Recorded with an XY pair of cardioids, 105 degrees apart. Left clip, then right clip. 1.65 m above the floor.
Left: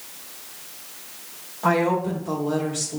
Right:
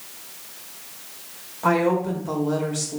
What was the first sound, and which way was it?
A woman speaking, 5° right.